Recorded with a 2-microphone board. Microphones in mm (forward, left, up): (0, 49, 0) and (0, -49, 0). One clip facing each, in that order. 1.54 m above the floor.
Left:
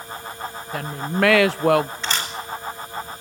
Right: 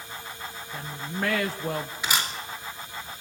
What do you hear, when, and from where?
0.7 s a woman speaking: 80° left, 0.5 m
2.0 s a camera shutter: 10° right (ahead or behind), 4.5 m